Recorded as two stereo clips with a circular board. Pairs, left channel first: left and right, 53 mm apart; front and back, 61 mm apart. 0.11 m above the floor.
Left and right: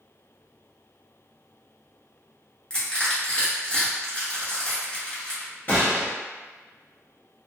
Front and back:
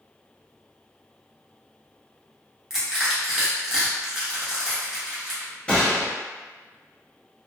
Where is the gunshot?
60° left, 1.4 m.